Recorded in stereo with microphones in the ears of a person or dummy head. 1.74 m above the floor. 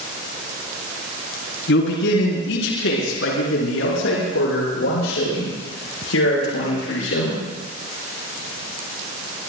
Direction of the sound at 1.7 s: 75° left (ahead or behind).